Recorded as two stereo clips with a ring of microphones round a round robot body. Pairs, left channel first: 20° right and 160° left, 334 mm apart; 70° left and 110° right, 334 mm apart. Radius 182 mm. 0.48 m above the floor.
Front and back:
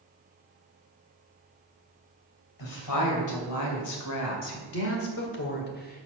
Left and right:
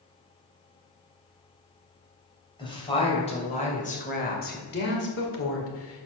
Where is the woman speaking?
5° right, 3 m; by 6.1 s 35° left, 1.8 m.